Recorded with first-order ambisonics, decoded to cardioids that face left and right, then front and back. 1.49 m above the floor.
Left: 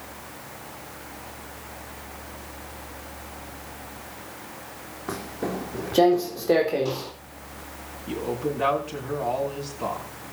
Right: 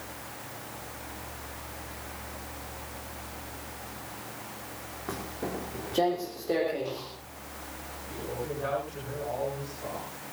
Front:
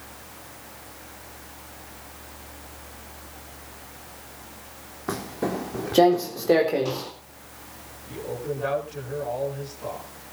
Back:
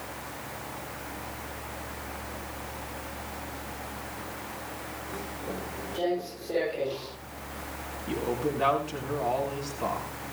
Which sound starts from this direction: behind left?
A man speaking, at 8.1 s.